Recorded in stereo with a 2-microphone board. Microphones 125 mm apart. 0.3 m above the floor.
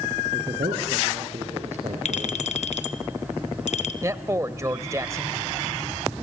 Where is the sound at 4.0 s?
25° right (ahead or behind), 1.0 m.